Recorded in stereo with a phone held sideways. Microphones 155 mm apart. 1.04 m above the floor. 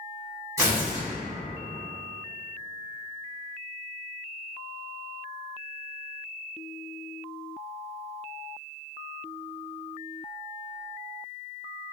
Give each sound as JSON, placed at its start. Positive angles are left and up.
{"t": 0.6, "sound": "tearing paper", "side_deg": -20, "distance_m": 1.1}